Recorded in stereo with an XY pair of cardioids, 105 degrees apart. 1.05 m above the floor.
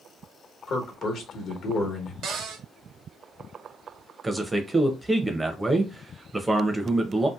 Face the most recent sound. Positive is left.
turn(degrees=-15)